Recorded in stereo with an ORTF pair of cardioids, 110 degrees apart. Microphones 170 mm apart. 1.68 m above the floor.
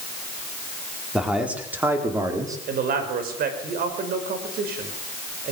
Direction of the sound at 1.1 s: 5° right.